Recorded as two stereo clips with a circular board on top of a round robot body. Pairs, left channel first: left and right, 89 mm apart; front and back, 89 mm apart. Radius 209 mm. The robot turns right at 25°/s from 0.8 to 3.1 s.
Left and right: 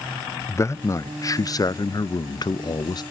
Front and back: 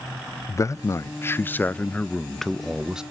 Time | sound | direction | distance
0.5 | a man speaking | 45° left | 0.6 m